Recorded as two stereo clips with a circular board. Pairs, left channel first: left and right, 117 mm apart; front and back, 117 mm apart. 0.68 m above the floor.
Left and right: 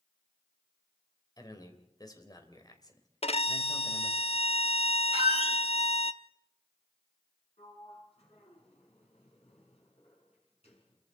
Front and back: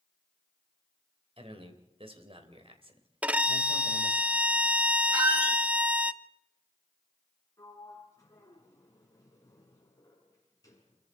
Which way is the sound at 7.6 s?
60° left.